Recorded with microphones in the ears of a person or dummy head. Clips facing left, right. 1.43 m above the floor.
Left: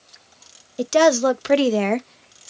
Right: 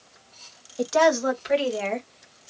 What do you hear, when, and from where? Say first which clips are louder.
0.8 s a woman speaking: left 4 dB; 35° left (ahead or behind), 1.0 m; by 2.5 s 65° left (ahead or behind), 0.8 m